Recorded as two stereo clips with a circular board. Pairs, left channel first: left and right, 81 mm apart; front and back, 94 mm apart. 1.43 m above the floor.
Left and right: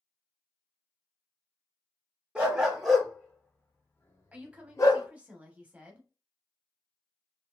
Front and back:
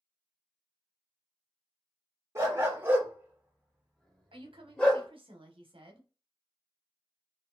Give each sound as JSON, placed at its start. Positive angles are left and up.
{"t": 2.4, "sound": "a dog barking", "azimuth_deg": -155, "distance_m": 1.0}
{"t": 4.3, "sound": "a woman speaking", "azimuth_deg": -165, "distance_m": 1.0}